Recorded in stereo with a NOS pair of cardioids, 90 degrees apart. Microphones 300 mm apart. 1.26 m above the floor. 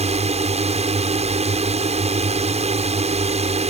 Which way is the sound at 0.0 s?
20° right.